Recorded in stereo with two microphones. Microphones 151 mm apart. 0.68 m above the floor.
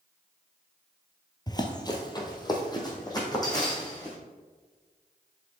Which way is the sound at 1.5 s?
30° left (ahead or behind).